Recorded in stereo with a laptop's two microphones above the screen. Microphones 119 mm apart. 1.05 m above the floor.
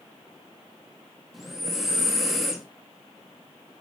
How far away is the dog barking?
I don't hear a dog barking.